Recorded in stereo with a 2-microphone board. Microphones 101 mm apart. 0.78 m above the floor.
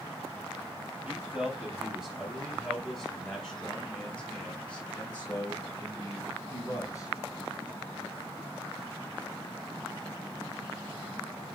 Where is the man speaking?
10° right (ahead or behind), 5 m; by 7.1 s 30° left (ahead or behind), 5 m.